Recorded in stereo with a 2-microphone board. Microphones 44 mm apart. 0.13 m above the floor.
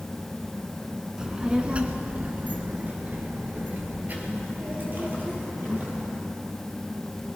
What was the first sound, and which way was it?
A child speaking, 15° right (ahead or behind).